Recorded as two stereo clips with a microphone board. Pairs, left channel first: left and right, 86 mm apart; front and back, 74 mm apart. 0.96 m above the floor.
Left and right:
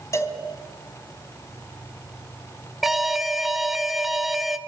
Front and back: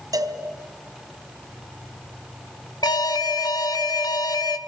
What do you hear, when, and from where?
0.1 s a cowbell: 145° left, 3 m
2.8 s an alarm: 5° right, 1.1 m